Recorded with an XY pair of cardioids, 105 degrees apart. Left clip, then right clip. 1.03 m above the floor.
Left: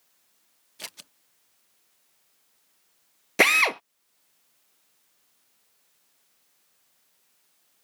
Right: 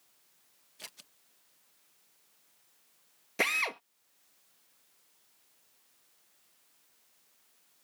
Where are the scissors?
50° left.